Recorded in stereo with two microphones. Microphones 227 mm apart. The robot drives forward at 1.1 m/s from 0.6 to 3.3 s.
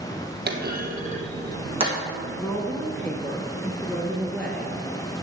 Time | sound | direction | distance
0.5 | a clunk | 45° right (ahead or behind) | 1.6 m
2.4 | a woman speaking | 10° left (ahead or behind) | 1.1 m